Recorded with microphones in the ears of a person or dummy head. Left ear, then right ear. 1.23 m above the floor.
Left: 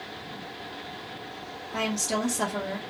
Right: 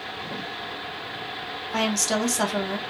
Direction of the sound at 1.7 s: 70° right (ahead or behind).